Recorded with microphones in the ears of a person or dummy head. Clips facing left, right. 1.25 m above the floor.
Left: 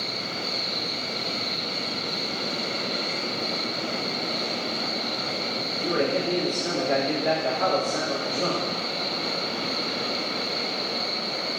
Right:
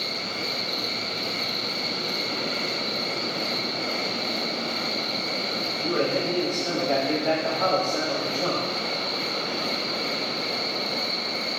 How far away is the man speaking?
About 3.5 m.